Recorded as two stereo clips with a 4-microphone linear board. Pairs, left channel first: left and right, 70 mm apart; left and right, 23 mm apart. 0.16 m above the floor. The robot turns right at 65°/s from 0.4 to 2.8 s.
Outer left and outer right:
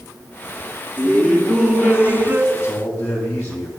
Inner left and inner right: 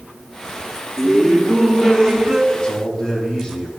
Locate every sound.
1.0 s laughter: 145° left, 1.7 m; by 2.4 s 120° right, 1.7 m
2.5 s a man speaking: 45° left (ahead or behind), 7 m; by 3.7 s 25° left (ahead or behind), 7 m